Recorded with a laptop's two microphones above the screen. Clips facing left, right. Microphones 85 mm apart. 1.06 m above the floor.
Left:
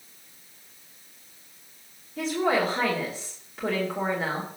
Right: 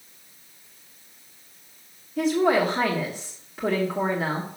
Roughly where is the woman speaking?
Centre.